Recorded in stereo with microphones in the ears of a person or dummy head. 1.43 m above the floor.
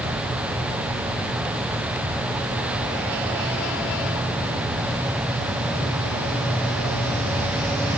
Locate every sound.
Only background noise.